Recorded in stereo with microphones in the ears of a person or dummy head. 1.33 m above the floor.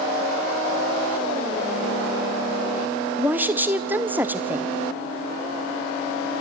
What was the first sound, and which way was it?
A woman speaking, 10° right (ahead or behind).